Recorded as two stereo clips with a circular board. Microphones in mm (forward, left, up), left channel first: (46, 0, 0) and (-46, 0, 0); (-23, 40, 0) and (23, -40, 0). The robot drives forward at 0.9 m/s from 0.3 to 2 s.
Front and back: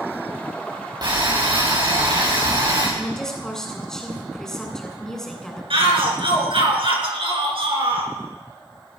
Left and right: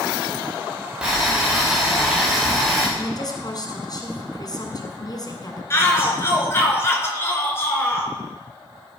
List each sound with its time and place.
1.0 s boiling: 140° right, 5.5 m; by 2.9 s 145° right, 6 m
3.0 s a woman speaking: 85° left, 3 m
5.7 s a shout: straight behind, 3.5 m